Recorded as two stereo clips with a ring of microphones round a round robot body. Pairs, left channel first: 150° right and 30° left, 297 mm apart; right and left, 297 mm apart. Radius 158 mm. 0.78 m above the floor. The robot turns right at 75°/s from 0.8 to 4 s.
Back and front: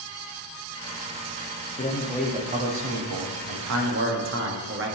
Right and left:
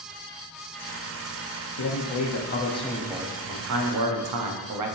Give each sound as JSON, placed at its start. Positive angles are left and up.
{"t": 1.8, "sound": "a man speaking", "azimuth_deg": -90, "distance_m": 1.0}